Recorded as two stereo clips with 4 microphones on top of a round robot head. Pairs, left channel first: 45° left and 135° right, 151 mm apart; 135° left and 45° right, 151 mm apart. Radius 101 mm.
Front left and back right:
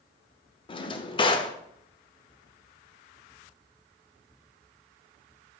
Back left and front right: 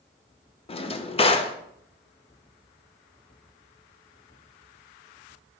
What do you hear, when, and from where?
0.7 s a drawer: 95° left, 0.7 m